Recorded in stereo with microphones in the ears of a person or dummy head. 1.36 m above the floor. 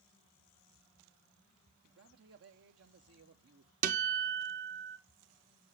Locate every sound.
1.8 s a man speaking: 70° right (ahead or behind), 0.9 m
3.8 s a guitar: 45° right (ahead or behind), 0.7 m